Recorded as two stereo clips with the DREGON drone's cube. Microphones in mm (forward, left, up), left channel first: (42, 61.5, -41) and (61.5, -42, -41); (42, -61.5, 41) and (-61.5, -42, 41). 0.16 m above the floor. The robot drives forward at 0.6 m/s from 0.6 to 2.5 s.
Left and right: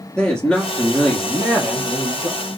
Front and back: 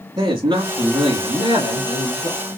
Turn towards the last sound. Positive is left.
turn(degrees=180)